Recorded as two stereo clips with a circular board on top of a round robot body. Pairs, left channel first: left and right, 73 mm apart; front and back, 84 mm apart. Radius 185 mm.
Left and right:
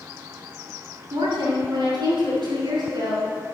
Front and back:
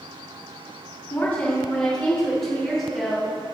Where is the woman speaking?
70° right, 5 m; by 3.5 s 95° right, 4.5 m.